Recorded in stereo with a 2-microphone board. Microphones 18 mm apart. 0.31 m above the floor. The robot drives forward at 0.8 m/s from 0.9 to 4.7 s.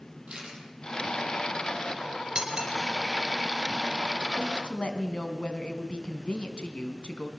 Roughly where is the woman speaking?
Left.